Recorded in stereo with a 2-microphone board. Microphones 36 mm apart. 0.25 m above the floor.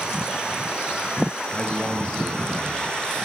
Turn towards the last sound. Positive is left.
turn(degrees=30)  # may be behind; listen again after turning